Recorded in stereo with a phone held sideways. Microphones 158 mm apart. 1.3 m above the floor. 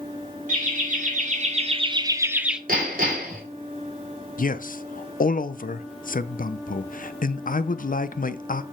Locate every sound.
0.5 s laughter: 55° right (ahead or behind), 0.9 m; by 2.6 s 5° right (ahead or behind), 0.6 m
2.7 s hammering: 65° right (ahead or behind), 3 m
4.4 s a man speaking: 60° left (ahead or behind), 0.5 m